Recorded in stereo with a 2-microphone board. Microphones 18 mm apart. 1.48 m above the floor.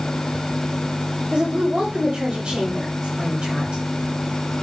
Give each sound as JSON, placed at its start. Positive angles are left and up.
{"t": 1.3, "sound": "a woman speaking", "side_deg": -50, "distance_m": 2.5}